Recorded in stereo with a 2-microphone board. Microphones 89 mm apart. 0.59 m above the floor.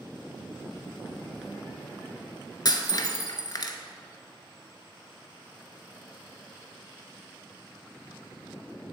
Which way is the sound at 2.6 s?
50° left (ahead or behind).